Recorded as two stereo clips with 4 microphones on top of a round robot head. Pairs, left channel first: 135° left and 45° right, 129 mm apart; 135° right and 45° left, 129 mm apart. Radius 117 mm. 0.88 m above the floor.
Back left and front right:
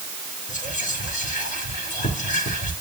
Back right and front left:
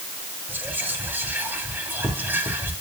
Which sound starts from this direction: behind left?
Whispering, at 0.5 s.